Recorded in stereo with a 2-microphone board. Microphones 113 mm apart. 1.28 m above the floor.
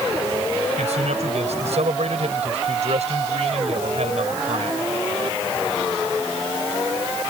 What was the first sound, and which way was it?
A man speaking, 80° right.